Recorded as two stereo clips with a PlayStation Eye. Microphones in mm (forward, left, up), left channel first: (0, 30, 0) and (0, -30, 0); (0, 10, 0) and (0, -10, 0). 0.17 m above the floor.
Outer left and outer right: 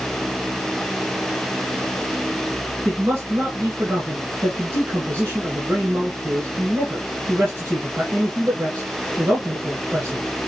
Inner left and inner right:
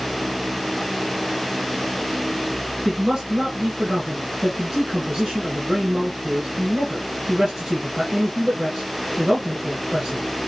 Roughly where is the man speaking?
Right.